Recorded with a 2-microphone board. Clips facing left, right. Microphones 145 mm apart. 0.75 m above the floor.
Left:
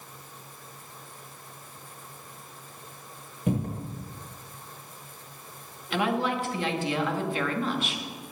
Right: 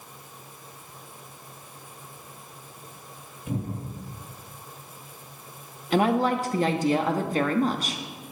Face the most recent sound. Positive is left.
turn(degrees=-40)  # may be behind; listen again after turning